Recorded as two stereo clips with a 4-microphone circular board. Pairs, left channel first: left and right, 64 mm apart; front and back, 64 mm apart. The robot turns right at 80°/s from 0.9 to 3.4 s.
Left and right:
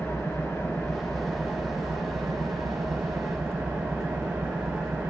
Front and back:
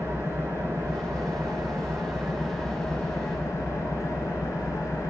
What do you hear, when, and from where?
0.0 s an engine running: 135° left, 2 m; by 5.1 s 25° right, 2 m